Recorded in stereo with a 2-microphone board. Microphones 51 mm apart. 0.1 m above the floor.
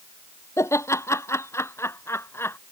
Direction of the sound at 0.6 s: 70° left (ahead or behind).